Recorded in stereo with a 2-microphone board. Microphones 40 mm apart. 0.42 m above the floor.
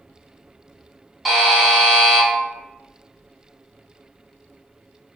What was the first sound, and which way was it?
A buzzer, centre (ahead or behind).